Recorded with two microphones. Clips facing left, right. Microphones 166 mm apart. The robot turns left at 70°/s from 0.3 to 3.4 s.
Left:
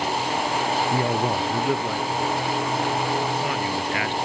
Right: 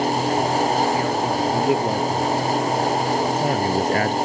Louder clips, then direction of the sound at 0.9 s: Right 1 dB; 40° left.